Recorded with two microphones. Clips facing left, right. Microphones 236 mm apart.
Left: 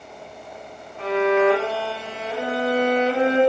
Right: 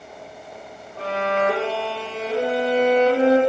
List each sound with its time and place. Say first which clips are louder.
1.0 s a violin: left 5 dB; 70° right (ahead or behind), 8 m